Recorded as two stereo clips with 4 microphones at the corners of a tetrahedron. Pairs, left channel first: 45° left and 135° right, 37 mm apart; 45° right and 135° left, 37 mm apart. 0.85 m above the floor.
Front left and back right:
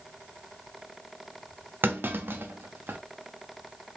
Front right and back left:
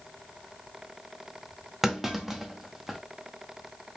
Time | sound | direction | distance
1.8 | a clunk | 145° right | 0.6 m